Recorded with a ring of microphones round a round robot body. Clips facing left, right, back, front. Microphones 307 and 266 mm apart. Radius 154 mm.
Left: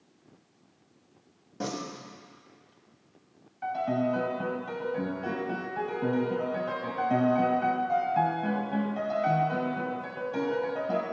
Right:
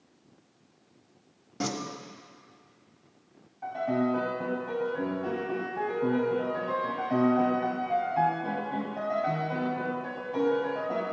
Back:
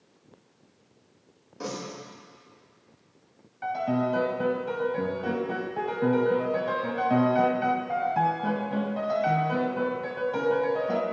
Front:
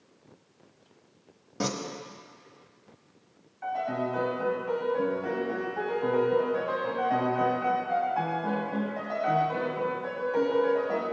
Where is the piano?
145° left, 1.8 m.